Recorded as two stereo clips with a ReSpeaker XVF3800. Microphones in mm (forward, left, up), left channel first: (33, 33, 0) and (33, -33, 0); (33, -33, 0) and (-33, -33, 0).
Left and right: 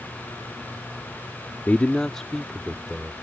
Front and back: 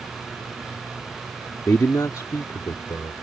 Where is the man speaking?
30° left; by 3.1 s 10° right.